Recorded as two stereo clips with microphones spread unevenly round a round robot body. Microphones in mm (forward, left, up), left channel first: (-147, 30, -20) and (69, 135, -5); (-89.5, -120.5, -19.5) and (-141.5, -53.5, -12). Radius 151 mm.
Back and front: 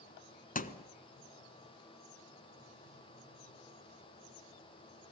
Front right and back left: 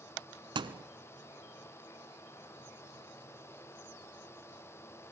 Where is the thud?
150° left, 1.3 m.